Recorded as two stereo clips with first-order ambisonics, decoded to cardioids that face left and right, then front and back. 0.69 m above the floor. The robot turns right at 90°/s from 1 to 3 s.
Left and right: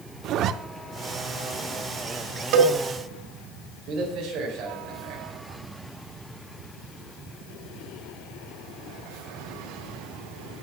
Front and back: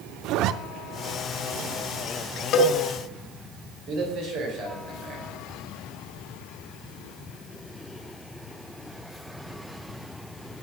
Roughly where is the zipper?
Behind right.